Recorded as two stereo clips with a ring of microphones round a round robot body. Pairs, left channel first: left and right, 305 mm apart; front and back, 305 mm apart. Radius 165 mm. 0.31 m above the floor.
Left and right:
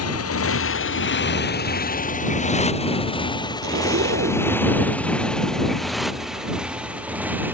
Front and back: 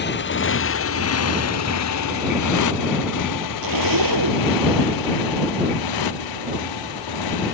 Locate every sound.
0.0 s a motorcycle: 55° left; by 7.5 s 5° right
3.6 s a zipper: 150° right